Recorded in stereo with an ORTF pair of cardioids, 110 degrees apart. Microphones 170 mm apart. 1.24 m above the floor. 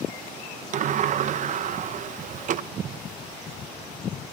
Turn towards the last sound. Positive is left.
turn(degrees=-45)